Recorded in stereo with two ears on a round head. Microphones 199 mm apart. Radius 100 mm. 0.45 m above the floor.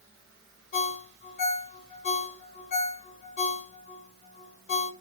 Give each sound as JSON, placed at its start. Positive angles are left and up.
{"t": 0.7, "sound": "a ringtone", "side_deg": 40, "distance_m": 1.2}